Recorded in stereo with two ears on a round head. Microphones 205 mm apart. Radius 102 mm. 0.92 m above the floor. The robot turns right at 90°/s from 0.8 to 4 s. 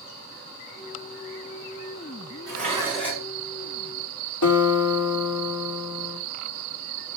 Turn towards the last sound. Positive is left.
turn(degrees=70)  # may be behind; listen again after turning